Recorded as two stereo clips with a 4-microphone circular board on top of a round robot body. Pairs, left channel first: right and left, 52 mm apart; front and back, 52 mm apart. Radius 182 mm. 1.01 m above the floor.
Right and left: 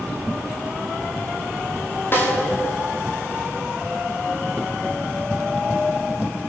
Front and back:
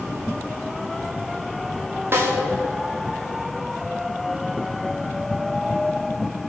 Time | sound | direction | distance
2.1 | a snare drum | 140° right | 3 m